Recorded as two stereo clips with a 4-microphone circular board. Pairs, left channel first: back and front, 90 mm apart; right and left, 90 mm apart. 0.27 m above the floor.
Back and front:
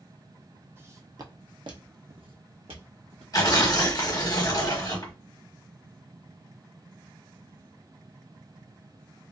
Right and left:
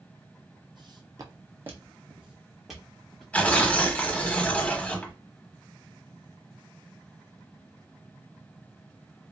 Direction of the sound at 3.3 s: 160° right.